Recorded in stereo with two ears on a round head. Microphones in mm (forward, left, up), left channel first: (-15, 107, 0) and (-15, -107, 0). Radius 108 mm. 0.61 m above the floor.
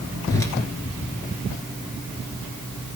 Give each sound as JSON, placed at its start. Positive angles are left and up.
{"t": 0.3, "sound": "a whoosh", "side_deg": 15, "distance_m": 1.5}